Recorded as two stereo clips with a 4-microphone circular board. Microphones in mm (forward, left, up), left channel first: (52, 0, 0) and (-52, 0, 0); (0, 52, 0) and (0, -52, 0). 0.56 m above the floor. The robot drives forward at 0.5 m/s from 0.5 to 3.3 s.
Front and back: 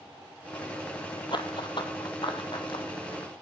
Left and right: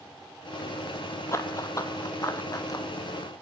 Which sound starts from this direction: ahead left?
Running footsteps, at 1.3 s.